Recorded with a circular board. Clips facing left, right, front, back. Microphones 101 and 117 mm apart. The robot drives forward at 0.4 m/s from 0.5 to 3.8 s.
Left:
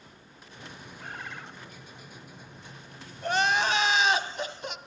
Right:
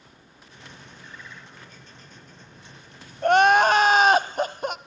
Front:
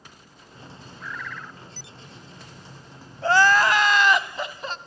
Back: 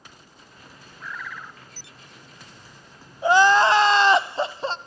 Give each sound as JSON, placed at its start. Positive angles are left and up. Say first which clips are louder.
{"t": 1.0, "sound": "a bird", "louder": "left 6 dB, even", "azimuth_deg": 90, "distance_m": 1.2}
{"t": 3.2, "sound": "crying", "louder": "right 10 dB, back 2 dB", "azimuth_deg": -105, "distance_m": 0.7}